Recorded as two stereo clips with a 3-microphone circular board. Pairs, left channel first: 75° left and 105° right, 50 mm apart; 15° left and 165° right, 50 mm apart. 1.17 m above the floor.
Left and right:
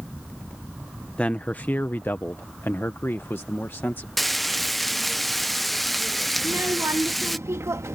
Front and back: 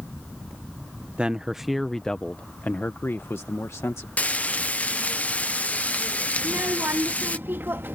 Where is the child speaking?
125° right.